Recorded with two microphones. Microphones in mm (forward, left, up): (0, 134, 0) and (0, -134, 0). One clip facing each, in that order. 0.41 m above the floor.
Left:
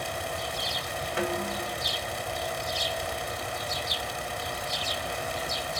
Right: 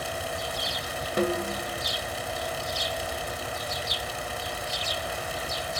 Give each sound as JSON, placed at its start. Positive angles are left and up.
{"t": 1.2, "sound": "a snare drum", "side_deg": -45, "distance_m": 1.7}